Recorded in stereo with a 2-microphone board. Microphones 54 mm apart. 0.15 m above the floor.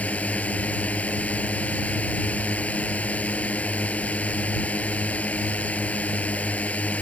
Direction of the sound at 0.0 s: 25° left (ahead or behind).